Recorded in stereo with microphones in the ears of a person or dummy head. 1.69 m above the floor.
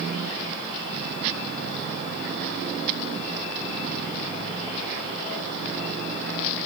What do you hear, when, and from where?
Only background noise.